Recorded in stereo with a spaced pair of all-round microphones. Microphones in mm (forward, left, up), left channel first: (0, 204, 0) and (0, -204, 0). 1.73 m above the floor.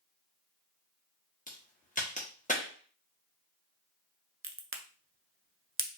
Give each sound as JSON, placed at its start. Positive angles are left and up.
{"t": 1.5, "sound": "a crack", "side_deg": 20, "distance_m": 1.4}
{"t": 4.4, "sound": "a crack", "side_deg": -30, "distance_m": 0.6}